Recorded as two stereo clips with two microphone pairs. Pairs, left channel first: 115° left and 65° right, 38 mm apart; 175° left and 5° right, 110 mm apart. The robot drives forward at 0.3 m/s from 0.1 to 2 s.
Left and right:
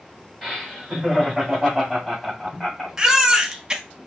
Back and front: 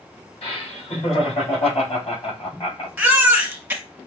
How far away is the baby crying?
About 0.7 m.